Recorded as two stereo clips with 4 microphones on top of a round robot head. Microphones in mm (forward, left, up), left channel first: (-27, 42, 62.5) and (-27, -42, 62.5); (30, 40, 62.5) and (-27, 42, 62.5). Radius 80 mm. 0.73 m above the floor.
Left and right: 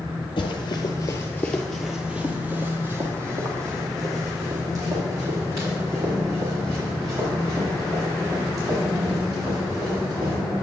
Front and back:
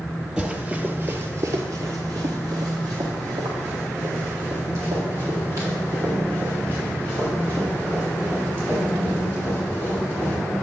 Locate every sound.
0.4 s running footsteps: 105° left, 1.3 m; by 10.3 s 125° right, 8 m